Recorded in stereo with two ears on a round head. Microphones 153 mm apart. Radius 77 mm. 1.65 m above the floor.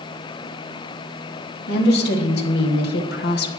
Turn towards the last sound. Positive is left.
turn(degrees=70)  # may be behind; listen again after turning